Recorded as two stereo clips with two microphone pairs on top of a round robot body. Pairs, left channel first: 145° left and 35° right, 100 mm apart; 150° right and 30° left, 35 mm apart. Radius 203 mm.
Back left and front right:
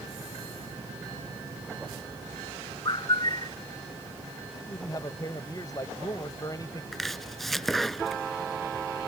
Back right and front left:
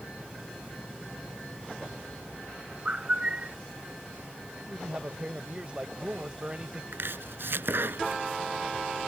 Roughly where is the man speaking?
Left.